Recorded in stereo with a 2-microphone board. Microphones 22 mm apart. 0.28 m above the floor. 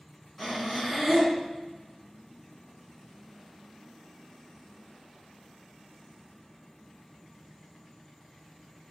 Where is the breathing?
Centre (ahead or behind), 3 m.